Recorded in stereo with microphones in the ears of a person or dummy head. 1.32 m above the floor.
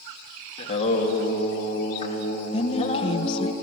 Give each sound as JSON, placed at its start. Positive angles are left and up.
{"t": 0.6, "sound": "singing", "side_deg": 35, "distance_m": 2.5}
{"t": 2.5, "sound": "a woman speaking", "side_deg": 35, "distance_m": 1.0}